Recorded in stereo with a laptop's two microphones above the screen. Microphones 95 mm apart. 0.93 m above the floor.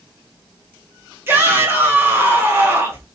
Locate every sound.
1.3 s a shout: 25° right (ahead or behind), 0.9 m